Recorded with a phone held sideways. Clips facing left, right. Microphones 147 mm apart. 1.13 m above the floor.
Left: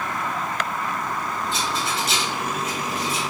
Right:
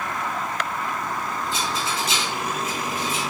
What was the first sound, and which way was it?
A rattle, 70° left (ahead or behind).